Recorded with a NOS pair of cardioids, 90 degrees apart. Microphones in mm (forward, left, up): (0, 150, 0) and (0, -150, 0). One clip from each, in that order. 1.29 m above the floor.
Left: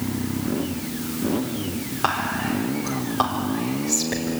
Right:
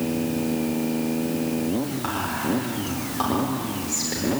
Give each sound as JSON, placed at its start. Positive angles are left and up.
{"t": 2.0, "sound": "whispering", "azimuth_deg": 60, "distance_m": 4.5}